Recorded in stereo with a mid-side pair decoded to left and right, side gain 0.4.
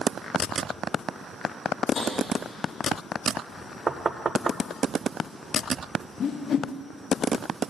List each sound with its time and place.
1.9 s tapping: 60° left, 3.5 m
3.9 s knocking: 40° right, 0.5 m
6.2 s a whoosh: 60° left, 0.7 m